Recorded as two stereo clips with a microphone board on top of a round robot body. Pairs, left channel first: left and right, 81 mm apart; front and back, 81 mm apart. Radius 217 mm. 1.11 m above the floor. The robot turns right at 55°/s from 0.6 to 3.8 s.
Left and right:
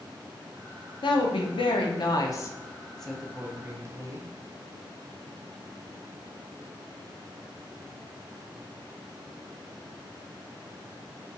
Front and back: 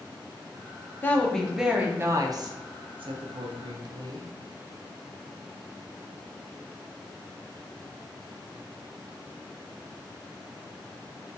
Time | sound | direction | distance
1.0 | a woman speaking | 65° left | 0.6 m